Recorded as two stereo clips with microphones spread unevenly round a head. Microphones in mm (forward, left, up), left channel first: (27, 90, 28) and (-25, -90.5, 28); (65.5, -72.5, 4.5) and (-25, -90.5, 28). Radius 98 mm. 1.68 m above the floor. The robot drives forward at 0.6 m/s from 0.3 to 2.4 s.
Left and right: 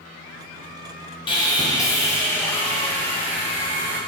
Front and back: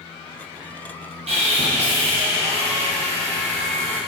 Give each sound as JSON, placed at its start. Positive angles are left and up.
{"t": 1.3, "sound": "sawing", "azimuth_deg": 140, "distance_m": 1.5}